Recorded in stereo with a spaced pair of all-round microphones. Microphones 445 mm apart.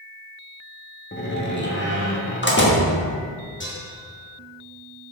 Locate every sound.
1.1 s a door slam: 25° left (ahead or behind), 1.2 m
3.6 s dishes clattering: 25° left (ahead or behind), 1.8 m